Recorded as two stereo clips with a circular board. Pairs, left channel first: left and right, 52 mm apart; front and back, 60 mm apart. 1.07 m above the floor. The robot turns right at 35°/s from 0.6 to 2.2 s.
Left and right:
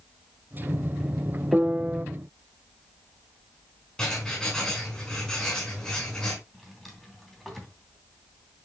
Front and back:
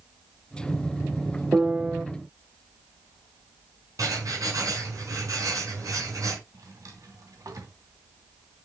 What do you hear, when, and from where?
1.5 s a piano: 135° right, 0.6 m; by 2.0 s 115° right, 0.6 m
4.0 s writing: 170° left, 5 m
6.5 s a drawer: straight behind, 3 m